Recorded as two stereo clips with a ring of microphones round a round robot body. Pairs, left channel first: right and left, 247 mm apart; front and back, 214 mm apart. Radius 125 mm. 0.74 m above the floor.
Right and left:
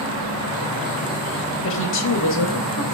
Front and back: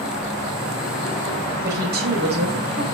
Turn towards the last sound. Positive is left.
turn(degrees=-130)